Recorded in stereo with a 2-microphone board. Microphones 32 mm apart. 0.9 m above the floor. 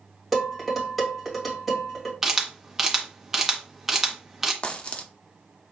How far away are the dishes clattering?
About 2.5 m.